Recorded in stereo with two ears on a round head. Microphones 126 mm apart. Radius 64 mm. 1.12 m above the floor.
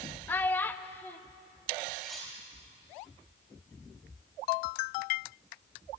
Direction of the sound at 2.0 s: Centre (ahead or behind).